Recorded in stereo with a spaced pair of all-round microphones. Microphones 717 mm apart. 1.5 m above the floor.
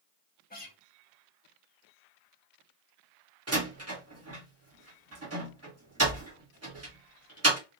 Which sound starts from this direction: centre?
A guitar, at 0.5 s.